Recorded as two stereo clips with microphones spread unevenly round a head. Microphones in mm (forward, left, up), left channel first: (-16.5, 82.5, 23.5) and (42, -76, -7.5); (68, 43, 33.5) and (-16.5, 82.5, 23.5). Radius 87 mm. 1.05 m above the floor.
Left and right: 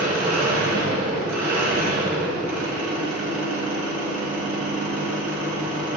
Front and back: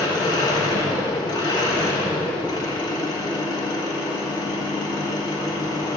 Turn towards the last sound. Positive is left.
turn(degrees=10)